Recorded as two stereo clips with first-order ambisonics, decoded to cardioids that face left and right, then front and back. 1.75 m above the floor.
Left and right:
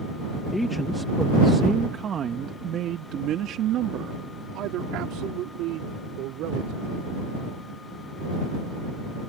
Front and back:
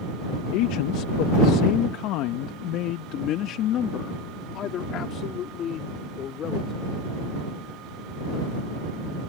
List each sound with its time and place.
0.5 s a man speaking: 5° left; by 7.1 s 60° right